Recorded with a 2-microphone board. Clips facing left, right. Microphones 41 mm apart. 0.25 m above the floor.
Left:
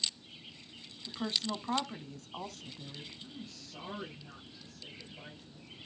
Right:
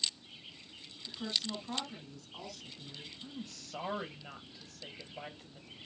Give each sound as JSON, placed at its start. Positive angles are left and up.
{"t": 1.1, "sound": "a woman speaking", "side_deg": 45, "distance_m": 2.0}
{"t": 3.2, "sound": "a woman speaking", "side_deg": -60, "distance_m": 5.0}